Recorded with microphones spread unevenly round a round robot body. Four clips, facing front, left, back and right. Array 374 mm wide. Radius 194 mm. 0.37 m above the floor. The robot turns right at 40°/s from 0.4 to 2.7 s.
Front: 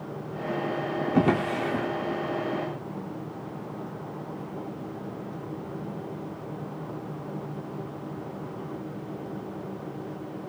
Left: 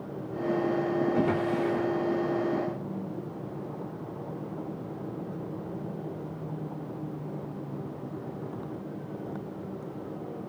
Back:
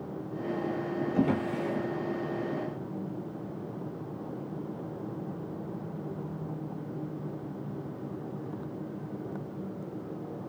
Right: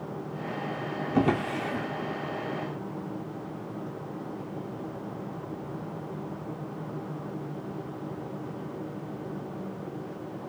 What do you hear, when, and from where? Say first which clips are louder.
1.1 s a drawer: even, front 5 dB; 40° right, 10 m; by 1.9 s 10° right, 10 m